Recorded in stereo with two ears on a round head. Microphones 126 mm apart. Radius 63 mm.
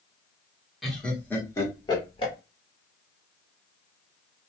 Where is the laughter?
Centre (ahead or behind), 1.0 m; by 2.3 s 40° left (ahead or behind), 1.2 m.